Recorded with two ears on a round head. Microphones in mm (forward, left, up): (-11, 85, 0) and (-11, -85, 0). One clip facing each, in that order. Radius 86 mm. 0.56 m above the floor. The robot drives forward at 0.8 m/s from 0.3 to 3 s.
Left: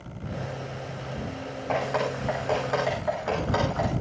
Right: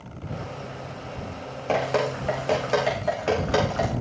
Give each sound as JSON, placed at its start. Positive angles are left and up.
{"t": 1.7, "sound": "dripping", "side_deg": -40, "distance_m": 9.0}